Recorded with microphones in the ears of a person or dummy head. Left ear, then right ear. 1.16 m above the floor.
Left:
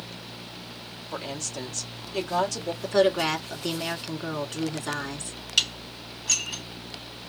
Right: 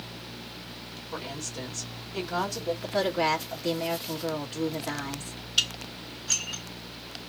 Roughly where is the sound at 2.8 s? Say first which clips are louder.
Left 5 dB; left.